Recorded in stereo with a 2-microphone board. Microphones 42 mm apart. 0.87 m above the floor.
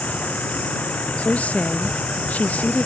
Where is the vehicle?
35° left (ahead or behind); by 2.9 s 30° left (ahead or behind).